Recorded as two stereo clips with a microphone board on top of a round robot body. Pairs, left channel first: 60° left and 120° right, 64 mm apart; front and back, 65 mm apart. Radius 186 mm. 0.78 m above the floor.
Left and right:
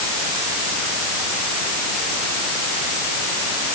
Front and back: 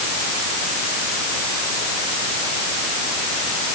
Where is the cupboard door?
No cupboard door in this recording.